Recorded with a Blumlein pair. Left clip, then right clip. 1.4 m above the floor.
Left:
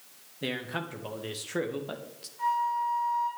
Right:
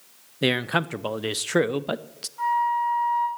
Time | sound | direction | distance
0.4 | a man speaking | 60° right | 0.5 m
2.4 | a flute | 45° right | 7 m